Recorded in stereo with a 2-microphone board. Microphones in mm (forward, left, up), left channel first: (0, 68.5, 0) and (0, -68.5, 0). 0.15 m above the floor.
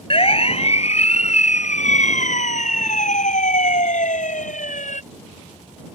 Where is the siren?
45° left (ahead or behind); by 5.0 s 70° left (ahead or behind).